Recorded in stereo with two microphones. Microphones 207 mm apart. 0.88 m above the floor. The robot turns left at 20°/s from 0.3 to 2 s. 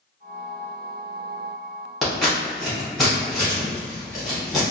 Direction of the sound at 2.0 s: Centre (ahead or behind).